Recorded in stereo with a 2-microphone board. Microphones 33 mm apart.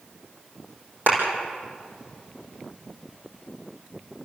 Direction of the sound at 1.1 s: 80° right.